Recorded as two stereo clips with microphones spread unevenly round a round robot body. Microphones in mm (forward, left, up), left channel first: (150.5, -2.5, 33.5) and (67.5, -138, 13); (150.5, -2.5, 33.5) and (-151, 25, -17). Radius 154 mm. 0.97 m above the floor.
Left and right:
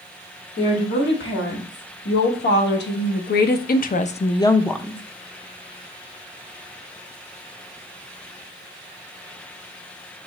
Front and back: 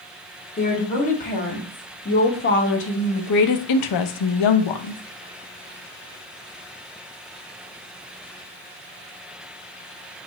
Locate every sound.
0.6 s a woman speaking: 65° left, 2.0 m; by 5.0 s 40° right, 0.7 m